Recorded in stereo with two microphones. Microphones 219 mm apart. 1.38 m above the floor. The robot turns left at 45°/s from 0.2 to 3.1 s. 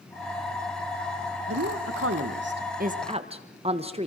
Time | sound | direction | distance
1.5 | a woman speaking | 80° right | 1.2 m